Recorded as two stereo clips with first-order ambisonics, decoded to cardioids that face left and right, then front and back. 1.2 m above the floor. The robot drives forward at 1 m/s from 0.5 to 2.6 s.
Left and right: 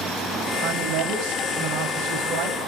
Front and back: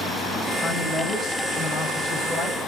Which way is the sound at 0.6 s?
70° right.